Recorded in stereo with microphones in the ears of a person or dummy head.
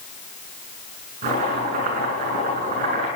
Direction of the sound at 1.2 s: 45° right (ahead or behind).